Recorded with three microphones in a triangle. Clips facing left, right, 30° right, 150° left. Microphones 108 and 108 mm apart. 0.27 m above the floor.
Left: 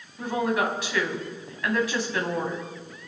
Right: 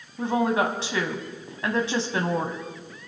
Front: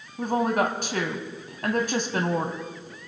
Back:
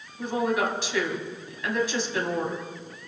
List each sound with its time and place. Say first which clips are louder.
0.2 s a woman speaking: right 2 dB, front 2 dB; 40° right, 1.8 m